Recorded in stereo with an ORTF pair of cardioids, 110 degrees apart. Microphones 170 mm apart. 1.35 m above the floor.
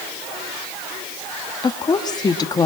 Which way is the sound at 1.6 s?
25° left.